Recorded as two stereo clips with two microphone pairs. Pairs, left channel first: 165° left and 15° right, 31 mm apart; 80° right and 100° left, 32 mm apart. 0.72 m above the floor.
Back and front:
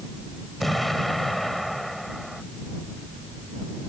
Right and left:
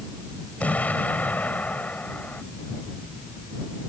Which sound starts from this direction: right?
An explosion, at 0.6 s.